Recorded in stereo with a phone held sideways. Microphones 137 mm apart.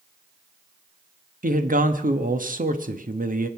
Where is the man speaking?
80° right, 1.3 m.